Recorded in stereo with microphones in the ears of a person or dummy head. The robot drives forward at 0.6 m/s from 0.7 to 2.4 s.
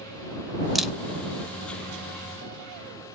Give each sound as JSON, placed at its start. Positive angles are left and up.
{"t": 0.8, "sound": "a camera shutter", "side_deg": 0, "distance_m": 0.5}